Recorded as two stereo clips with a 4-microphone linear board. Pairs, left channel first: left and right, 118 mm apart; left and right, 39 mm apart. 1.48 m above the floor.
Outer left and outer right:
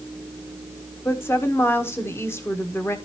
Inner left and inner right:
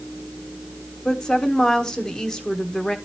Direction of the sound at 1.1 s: 20° left (ahead or behind).